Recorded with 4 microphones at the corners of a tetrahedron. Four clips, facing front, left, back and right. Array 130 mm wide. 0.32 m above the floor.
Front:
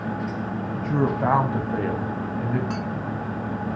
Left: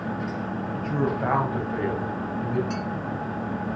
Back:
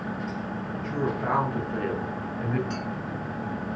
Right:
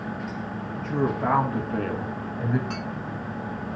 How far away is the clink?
About 1.8 m.